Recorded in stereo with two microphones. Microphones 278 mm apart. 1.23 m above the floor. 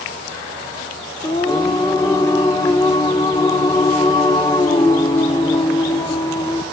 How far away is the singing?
About 1.3 m.